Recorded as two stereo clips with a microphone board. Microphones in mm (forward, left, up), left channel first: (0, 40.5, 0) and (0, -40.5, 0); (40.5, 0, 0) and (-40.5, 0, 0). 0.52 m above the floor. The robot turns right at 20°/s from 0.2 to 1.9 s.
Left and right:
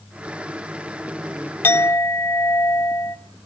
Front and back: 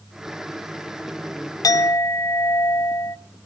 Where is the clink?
35° left, 0.8 m; by 3.2 s 40° left, 0.8 m.